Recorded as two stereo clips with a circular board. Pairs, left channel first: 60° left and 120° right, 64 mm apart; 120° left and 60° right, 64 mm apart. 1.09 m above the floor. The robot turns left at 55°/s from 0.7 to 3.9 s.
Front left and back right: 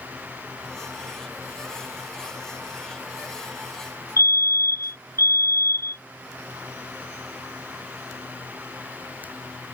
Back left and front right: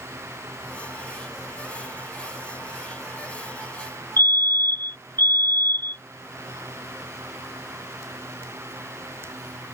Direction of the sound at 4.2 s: 80° left.